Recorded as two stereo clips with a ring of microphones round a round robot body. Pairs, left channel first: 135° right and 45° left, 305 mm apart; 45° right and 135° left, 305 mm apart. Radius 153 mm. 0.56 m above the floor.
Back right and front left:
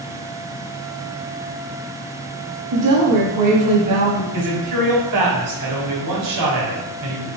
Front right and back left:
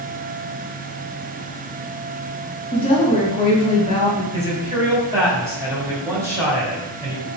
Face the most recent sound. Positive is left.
turn(degrees=55)